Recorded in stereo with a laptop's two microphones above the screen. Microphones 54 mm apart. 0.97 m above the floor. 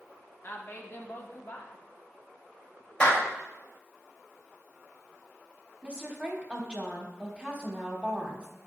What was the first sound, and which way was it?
A woman speaking, 40° left (ahead or behind).